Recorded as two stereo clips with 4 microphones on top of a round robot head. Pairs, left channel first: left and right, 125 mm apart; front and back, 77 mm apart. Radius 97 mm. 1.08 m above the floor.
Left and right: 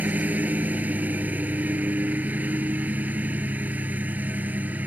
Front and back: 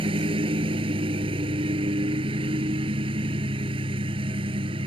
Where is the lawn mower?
165° right.